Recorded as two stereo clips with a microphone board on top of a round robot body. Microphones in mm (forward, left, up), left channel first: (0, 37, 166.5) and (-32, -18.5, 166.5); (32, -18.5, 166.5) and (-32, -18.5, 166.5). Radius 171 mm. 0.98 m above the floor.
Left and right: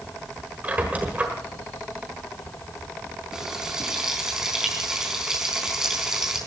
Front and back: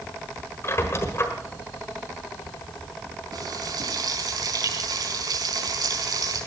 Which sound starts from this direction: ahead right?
A squeak, at 0.6 s.